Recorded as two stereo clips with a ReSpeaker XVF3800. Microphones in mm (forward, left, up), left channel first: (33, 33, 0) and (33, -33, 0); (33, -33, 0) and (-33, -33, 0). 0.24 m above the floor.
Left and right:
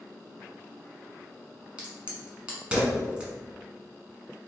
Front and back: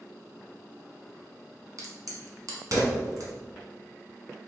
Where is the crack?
160° right, 1.2 m.